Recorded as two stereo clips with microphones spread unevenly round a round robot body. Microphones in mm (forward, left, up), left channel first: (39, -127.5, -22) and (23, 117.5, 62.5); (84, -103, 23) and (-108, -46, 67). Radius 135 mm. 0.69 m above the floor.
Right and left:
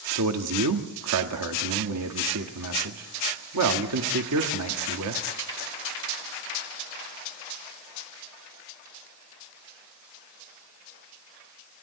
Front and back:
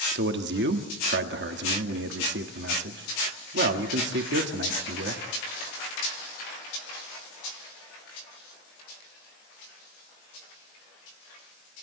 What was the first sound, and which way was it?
A man speaking, 125° left.